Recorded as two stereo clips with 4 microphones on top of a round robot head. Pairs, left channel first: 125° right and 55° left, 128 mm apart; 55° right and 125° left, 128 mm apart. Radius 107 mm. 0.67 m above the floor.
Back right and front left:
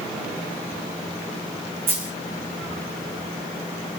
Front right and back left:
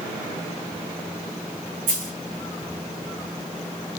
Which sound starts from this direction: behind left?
A dropped coin, at 1.9 s.